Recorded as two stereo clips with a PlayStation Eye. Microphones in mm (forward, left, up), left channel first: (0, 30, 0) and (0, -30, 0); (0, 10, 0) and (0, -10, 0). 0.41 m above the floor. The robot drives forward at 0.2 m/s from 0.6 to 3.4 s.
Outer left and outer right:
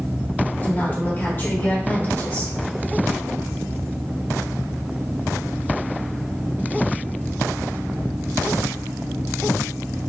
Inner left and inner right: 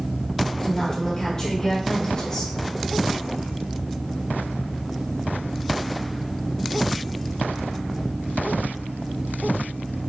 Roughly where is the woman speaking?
Left.